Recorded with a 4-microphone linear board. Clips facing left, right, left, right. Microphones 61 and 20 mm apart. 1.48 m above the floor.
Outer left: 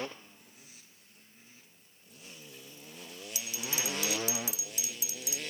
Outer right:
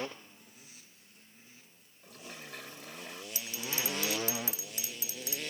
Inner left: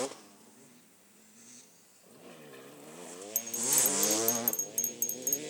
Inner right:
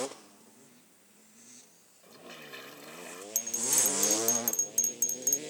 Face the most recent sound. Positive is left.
turn(degrees=-40)  # may be behind; listen again after turning